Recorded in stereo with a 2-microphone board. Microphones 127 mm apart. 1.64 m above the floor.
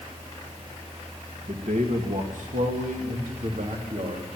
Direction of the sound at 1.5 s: 70° right (ahead or behind).